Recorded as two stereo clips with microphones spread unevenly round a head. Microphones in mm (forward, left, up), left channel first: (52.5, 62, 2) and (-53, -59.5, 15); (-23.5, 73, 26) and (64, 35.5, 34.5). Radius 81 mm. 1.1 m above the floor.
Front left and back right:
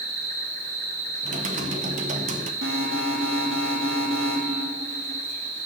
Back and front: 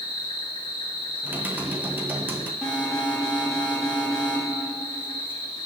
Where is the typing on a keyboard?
95° right, 0.9 m.